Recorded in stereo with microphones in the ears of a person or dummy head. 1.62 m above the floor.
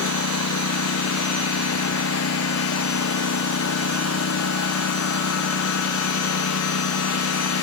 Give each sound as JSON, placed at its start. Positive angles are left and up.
{"t": 0.0, "sound": "a lawn mower", "side_deg": 75}